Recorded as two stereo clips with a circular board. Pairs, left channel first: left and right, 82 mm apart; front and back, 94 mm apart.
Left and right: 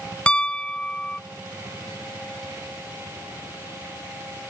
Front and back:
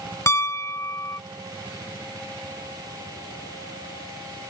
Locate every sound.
0.3 s a piano: 20° left